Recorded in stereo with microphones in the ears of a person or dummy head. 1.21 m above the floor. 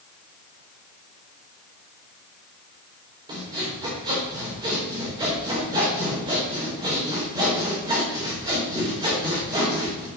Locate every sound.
3.3 s sawing: 25° right (ahead or behind), 3.5 m